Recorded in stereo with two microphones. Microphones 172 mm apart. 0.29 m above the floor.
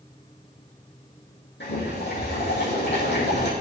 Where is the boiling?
85° left, 4 m.